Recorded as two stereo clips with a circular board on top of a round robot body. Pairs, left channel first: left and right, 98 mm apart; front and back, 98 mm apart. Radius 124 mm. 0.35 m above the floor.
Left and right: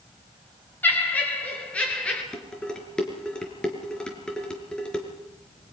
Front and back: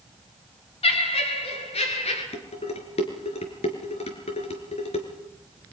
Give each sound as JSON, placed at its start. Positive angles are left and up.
{"t": 0.8, "sound": "laughter", "azimuth_deg": 15, "distance_m": 5.5}
{"t": 2.3, "sound": "dishes clattering", "azimuth_deg": 5, "distance_m": 4.5}